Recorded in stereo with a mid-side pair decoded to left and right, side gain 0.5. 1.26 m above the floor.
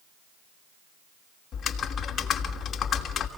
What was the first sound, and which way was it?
Typing on a keyboard, 50° left.